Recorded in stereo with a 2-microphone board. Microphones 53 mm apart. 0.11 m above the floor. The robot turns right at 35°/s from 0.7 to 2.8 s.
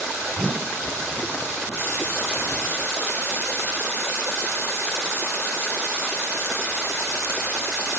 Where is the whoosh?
10° left (ahead or behind), 7.5 m.